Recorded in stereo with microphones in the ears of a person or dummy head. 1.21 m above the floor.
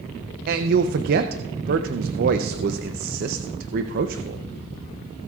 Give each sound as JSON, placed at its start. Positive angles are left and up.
{"t": 0.5, "sound": "a man speaking", "side_deg": -55, "distance_m": 0.6}